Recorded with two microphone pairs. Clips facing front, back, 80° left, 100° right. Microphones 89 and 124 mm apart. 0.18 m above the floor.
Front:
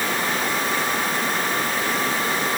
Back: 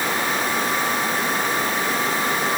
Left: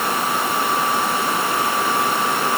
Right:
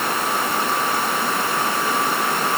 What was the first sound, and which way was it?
Only background noise.